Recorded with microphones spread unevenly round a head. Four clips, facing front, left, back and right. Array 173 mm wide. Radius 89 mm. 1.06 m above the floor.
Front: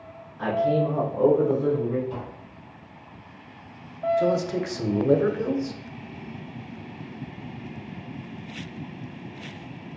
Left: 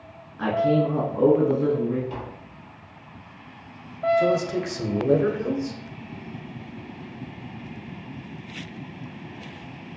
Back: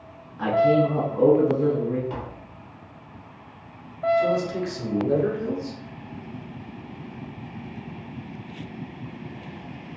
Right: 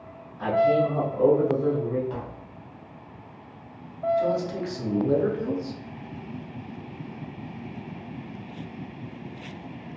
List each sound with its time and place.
0.4 s a man speaking: 130° left, 1.5 m
2.1 s tapping: 170° left, 1.6 m
4.2 s a man speaking: 35° left, 0.8 m